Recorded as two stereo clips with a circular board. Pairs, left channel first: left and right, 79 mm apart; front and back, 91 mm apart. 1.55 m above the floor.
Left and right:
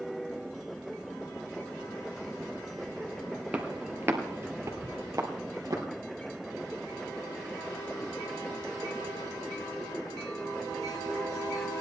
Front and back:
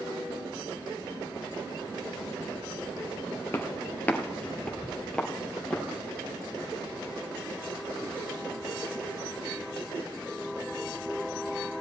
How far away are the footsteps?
About 1.7 m.